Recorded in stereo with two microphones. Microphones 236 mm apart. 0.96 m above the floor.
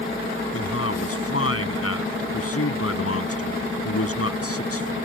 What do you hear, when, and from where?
0.5 s a man speaking: 75° left (ahead or behind)